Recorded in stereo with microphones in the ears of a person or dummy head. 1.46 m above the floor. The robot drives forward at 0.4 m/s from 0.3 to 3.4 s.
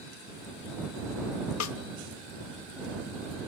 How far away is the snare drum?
About 0.9 m.